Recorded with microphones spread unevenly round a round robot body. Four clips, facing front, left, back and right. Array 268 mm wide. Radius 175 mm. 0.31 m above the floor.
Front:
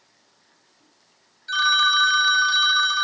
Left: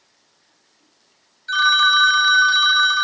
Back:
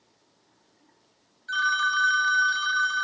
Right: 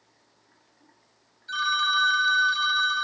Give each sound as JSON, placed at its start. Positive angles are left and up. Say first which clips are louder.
{"t": 1.5, "sound": "a phone ringing", "louder": "left 9 dB, front 4 dB", "azimuth_deg": 50, "distance_m": 0.9}